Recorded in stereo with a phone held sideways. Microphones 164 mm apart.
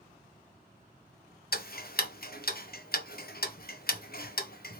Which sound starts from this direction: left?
Ticking, at 1.5 s.